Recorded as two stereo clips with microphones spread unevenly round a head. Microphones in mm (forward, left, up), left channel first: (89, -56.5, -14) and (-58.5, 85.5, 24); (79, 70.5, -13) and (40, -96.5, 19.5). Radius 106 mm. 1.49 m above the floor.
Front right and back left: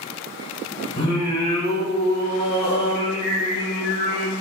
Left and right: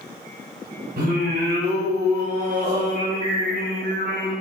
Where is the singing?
95° right, 3 m.